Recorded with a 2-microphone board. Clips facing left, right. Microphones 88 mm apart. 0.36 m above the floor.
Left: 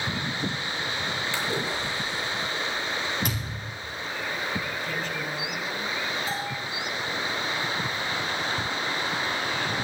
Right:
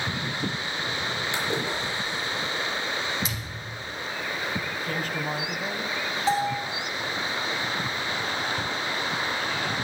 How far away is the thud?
About 5 m.